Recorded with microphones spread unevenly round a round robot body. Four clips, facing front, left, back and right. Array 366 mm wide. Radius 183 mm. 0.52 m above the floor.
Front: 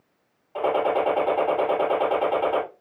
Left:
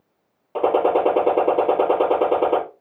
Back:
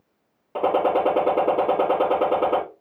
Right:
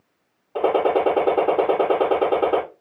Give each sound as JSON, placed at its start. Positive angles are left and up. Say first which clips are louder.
{"t": 0.6, "sound": "a gunshot", "louder": "left 1 dB, back 2 dB", "azimuth_deg": 140, "distance_m": 4.5}